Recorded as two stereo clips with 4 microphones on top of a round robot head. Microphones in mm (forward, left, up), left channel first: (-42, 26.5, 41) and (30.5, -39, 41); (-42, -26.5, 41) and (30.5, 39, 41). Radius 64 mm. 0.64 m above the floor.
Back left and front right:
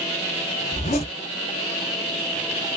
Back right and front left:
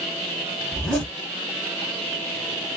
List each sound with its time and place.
0.7 s a zipper: 140° left, 0.9 m